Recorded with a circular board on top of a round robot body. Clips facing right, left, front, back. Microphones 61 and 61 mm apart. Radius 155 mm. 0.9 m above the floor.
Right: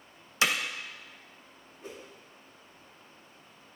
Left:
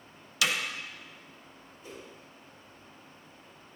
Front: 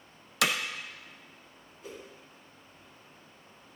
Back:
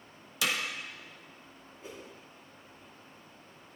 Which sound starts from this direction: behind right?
A whoosh, at 1.8 s.